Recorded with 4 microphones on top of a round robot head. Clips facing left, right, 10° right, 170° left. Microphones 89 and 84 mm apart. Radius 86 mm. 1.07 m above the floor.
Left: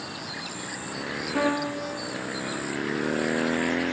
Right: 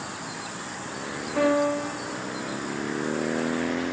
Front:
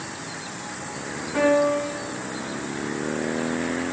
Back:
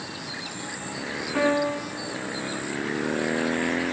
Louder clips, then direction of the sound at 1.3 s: Right 4 dB, front 4 dB; 75° left.